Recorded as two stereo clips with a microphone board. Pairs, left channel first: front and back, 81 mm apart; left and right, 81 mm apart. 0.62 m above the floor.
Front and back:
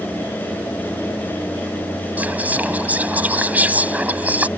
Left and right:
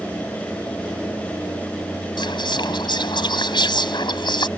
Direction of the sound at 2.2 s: 110° left.